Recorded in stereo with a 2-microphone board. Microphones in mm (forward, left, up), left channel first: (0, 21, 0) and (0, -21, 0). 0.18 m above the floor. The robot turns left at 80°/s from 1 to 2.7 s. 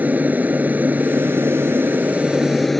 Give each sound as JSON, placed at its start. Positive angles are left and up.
{"t": 0.0, "sound": "an aircraft", "azimuth_deg": -45}